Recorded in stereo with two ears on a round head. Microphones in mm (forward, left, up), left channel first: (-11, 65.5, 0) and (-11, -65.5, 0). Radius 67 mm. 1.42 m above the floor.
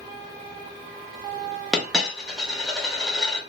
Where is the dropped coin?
Centre (ahead or behind), 0.8 m.